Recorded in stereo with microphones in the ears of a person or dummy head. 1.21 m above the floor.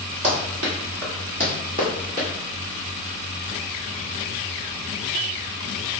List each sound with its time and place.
0.2 s running footsteps: 45° right (ahead or behind), 1.6 m; by 2.3 s 5° right (ahead or behind), 1.4 m